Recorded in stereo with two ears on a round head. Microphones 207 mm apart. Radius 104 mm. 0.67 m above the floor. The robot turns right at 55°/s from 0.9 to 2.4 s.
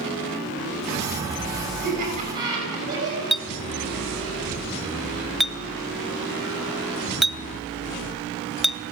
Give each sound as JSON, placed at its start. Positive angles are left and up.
{"t": 1.8, "sound": "laughter", "azimuth_deg": -50, "distance_m": 7.0}
{"t": 3.3, "sound": "a clink", "side_deg": 0, "distance_m": 0.7}